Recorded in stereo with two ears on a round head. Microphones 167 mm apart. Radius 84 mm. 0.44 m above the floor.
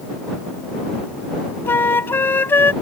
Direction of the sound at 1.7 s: 10° left (ahead or behind).